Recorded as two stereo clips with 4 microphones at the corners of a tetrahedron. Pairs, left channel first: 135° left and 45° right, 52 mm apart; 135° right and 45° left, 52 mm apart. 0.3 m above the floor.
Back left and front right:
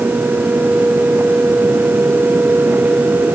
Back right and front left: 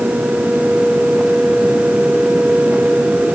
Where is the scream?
I don't hear a scream.